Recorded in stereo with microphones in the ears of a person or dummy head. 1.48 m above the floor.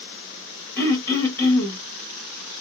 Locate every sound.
0.8 s throat clearing: 10° left (ahead or behind), 1.1 m